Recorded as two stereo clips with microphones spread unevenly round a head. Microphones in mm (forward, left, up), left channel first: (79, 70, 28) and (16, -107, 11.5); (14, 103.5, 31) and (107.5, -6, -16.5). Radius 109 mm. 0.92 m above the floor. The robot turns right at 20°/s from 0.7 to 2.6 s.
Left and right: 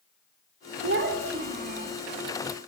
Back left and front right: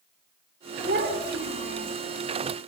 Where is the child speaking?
90° right, 2.5 m; by 1.9 s 65° right, 2.5 m.